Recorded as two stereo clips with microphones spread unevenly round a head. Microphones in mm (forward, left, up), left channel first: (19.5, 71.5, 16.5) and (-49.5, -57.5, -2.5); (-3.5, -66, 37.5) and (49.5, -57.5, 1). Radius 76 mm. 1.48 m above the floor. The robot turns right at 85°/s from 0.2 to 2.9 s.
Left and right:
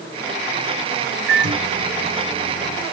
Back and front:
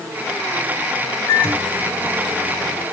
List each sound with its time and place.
1.3 s a microwave: 135° right, 3 m; by 2.8 s straight ahead, 3 m